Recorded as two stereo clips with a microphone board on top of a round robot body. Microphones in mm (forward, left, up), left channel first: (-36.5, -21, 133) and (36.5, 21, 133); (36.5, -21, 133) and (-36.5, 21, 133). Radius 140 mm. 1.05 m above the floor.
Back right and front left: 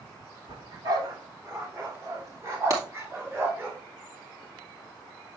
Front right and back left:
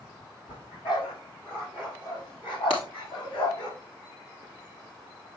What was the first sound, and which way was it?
A dog barking, 10° right.